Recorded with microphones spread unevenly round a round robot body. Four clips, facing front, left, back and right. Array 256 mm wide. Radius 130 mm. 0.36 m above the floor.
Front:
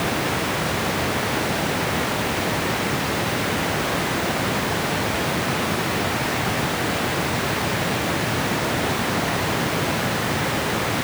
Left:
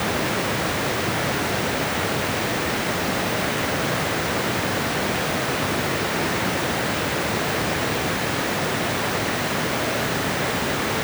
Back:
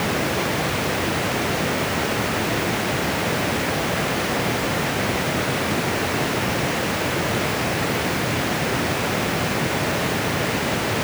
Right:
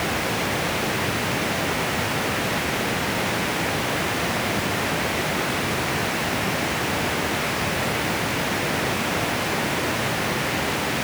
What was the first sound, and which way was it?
Only background noise.